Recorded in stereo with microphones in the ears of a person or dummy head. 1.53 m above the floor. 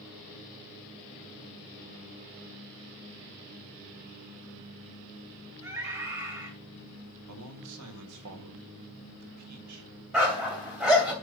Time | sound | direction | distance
5.6 | a scream | 15° right (ahead or behind) | 5 m
7.3 | a man speaking | 85° right | 1.9 m
10.1 | a dog barking | 5° right (ahead or behind) | 3 m